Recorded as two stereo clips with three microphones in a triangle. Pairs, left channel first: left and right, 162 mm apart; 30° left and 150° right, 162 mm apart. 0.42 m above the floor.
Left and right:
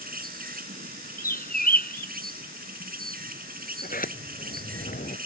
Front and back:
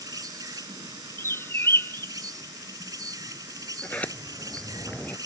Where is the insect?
85° right.